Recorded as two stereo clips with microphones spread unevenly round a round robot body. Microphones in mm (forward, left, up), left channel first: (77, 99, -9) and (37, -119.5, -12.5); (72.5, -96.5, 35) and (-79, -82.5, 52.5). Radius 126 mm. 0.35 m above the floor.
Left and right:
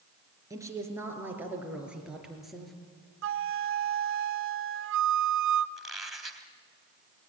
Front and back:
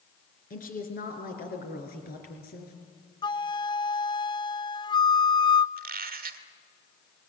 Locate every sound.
0.5 s a woman speaking: 25° right, 4.5 m; by 2.7 s 10° right, 5 m
3.2 s a flute: 65° right, 0.5 m
5.8 s a squeak: 170° left, 1.4 m